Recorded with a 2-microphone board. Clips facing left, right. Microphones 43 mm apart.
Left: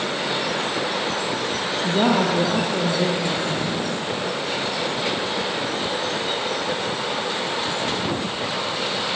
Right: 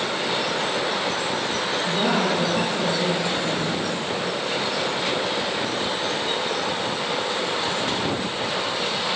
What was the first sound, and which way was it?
A woman speaking, 70° left (ahead or behind).